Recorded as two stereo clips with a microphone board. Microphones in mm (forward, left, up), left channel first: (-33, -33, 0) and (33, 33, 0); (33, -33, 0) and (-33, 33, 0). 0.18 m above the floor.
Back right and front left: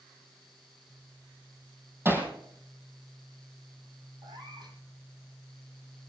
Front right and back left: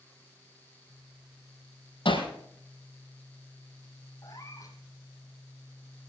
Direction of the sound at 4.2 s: 5° left.